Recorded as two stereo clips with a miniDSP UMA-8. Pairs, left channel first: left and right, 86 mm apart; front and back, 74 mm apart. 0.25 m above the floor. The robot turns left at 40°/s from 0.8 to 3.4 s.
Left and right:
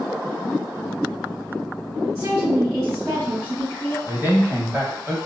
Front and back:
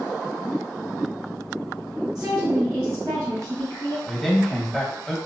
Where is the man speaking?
80° right, 0.9 m.